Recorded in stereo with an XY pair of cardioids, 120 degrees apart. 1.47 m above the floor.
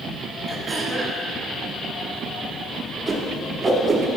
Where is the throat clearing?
35° right, 1.4 m.